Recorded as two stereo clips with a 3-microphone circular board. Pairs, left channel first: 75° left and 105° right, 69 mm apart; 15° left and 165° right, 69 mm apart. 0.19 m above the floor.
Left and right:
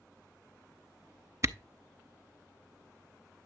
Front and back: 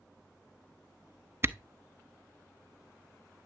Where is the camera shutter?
125° right, 0.6 m.